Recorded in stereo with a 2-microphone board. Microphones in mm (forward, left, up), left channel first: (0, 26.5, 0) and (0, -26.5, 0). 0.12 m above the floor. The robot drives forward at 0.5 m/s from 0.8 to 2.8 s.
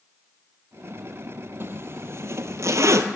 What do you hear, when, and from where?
1.6 s a zipper: 45° right (ahead or behind), 1.2 m; by 3.0 s 65° right (ahead or behind), 0.9 m